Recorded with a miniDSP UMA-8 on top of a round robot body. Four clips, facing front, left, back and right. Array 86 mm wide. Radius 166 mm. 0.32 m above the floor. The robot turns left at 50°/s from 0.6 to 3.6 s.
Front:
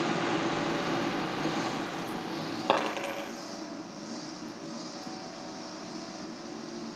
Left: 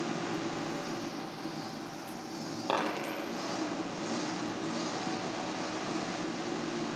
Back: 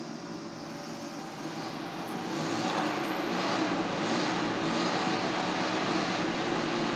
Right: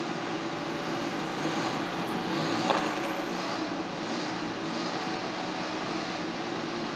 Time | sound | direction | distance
0.0 | an engine running | 10° right | 0.7 m
2.7 | a dropped coin | 5° right | 6 m